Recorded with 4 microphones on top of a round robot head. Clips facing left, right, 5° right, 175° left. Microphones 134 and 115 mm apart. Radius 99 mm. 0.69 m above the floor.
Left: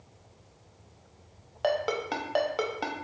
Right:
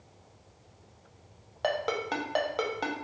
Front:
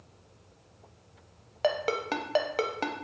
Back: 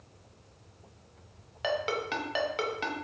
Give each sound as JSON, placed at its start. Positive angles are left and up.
{"t": 1.6, "sound": "a ringtone", "azimuth_deg": 5, "distance_m": 0.6}